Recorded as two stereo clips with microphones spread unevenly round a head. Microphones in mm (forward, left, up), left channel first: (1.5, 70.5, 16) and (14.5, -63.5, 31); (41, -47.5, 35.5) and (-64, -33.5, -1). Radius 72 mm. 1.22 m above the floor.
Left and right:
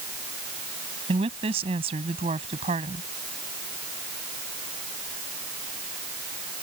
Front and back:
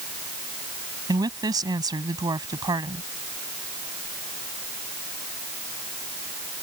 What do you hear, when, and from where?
1.1 s a woman speaking: 135° right